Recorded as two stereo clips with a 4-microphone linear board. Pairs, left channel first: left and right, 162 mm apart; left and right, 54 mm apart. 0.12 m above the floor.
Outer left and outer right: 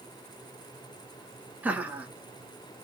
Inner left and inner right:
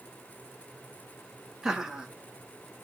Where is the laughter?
10° right (ahead or behind), 1.3 m.